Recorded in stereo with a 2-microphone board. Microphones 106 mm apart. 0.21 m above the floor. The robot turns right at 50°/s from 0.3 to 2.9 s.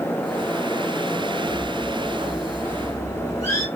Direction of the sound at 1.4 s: 40° right.